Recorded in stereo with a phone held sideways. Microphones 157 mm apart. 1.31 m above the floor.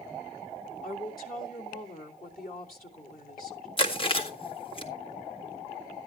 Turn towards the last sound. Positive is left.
turn(degrees=35)  # may be behind; listen again after turning